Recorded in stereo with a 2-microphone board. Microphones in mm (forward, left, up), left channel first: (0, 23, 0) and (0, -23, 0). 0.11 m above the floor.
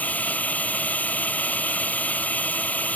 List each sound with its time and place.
0.0 s a drone: 35° left (ahead or behind)